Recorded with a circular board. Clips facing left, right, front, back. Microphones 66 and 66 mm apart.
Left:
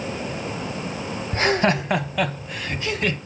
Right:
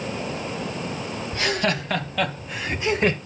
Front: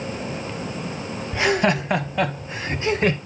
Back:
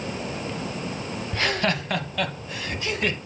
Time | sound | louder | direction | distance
1.3 | laughter | left 5 dB, front 5 dB | 70° left | 1.2 m